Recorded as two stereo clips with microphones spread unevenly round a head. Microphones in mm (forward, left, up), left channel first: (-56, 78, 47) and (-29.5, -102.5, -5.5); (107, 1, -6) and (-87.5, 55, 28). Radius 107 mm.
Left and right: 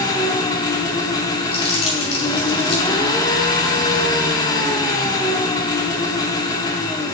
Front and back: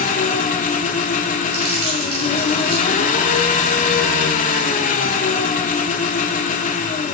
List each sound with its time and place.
0.0 s an engine running: 40° left, 0.8 m
1.5 s crumpling: 155° left, 4 m